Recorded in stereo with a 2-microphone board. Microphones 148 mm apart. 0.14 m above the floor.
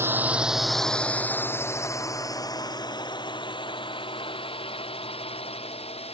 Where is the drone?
15° right (ahead or behind); by 6.2 s 40° left (ahead or behind).